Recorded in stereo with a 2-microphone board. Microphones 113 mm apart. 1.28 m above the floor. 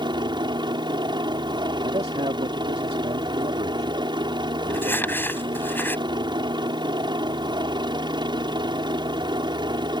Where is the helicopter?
40° right (ahead or behind).